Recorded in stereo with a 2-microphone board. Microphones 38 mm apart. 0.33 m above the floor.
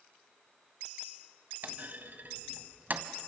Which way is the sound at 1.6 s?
55° right (ahead or behind).